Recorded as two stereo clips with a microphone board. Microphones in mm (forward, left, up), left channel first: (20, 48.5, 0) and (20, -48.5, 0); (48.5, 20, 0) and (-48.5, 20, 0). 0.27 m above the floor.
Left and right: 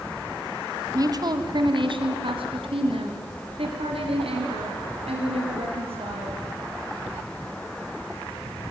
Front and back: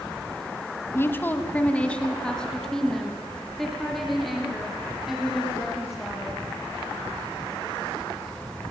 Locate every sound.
0.9 s a woman speaking: 55° right, 1.8 m; by 6.4 s 95° right, 7.5 m